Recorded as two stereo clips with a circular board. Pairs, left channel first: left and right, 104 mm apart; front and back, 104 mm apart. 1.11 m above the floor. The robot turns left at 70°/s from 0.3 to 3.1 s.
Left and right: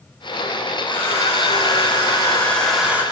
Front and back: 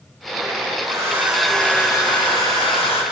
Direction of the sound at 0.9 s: 130° left.